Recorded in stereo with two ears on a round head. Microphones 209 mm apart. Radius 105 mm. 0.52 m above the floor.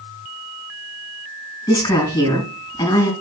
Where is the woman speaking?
15° left (ahead or behind), 4 m.